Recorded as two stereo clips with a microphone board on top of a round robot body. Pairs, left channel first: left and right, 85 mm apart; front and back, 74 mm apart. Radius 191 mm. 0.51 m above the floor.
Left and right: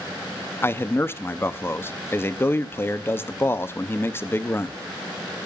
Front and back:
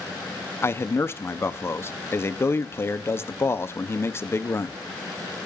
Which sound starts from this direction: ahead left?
A man speaking, at 0.6 s.